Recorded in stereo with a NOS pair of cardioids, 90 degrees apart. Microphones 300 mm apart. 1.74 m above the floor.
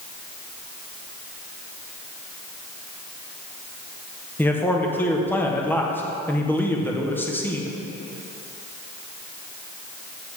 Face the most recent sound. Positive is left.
turn(degrees=5)